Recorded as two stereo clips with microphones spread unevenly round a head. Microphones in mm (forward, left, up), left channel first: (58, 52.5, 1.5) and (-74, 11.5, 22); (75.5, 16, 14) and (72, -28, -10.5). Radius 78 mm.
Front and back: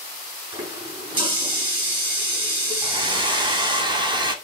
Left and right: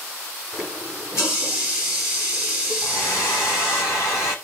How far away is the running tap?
About 9.5 m.